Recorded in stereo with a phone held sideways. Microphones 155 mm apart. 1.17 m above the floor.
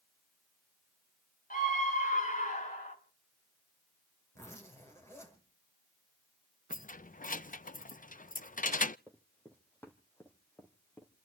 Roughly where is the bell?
I don't hear a bell.